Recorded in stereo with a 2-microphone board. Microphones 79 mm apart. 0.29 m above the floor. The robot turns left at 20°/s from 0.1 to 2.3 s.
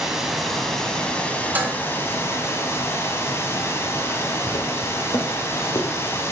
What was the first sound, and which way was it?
Running water, 175° right.